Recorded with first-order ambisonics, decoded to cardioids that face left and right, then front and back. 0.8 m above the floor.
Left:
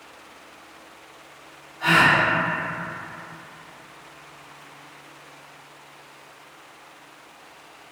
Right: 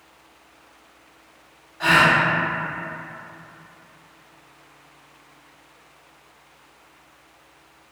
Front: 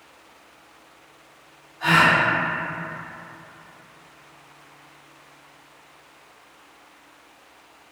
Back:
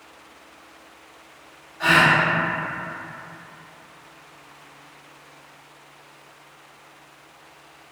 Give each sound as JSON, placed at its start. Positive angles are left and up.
{"t": 1.8, "sound": "a gasp", "azimuth_deg": -130, "distance_m": 0.7}